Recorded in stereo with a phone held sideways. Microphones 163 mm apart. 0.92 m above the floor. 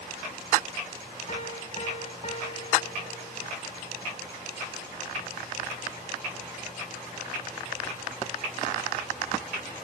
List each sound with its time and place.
1.3 s a piano: 45° left (ahead or behind), 1.2 m